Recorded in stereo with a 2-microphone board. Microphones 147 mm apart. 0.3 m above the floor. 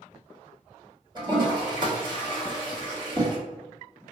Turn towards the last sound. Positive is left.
turn(degrees=-30)  # may be behind; listen again after turning